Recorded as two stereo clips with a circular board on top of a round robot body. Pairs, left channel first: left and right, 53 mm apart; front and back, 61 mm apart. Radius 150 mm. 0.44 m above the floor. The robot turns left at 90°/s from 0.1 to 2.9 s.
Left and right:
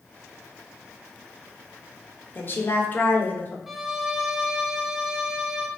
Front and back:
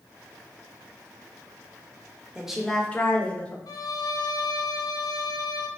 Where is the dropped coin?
No dropped coin in this recording.